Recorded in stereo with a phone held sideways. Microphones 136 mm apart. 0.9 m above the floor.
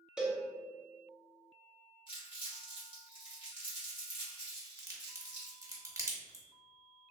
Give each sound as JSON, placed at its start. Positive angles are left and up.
{"t": 0.2, "sound": "a cowbell", "side_deg": -5, "distance_m": 0.6}
{"t": 2.1, "sound": "crumpling", "side_deg": 40, "distance_m": 1.3}
{"t": 4.8, "sound": "a crack", "side_deg": -25, "distance_m": 0.7}